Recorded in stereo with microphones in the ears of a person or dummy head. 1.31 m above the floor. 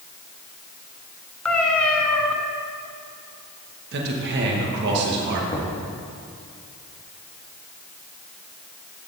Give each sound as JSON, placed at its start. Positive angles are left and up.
{"t": 1.4, "sound": "a cat meowing", "side_deg": 5, "distance_m": 1.3}
{"t": 3.9, "sound": "a man speaking", "side_deg": -65, "distance_m": 1.5}
{"t": 5.5, "sound": "knocking", "side_deg": 25, "distance_m": 1.7}